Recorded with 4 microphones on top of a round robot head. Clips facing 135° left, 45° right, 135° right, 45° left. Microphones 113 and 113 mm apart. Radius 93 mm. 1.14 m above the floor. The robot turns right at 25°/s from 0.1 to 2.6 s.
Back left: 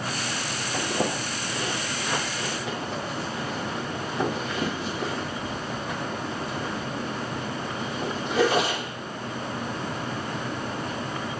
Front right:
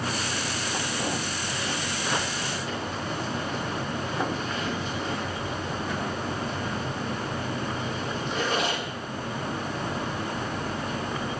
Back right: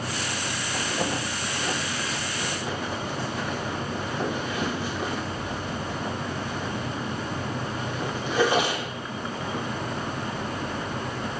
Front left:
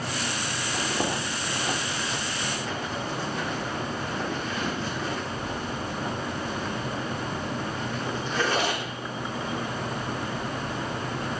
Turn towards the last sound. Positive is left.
turn(degrees=150)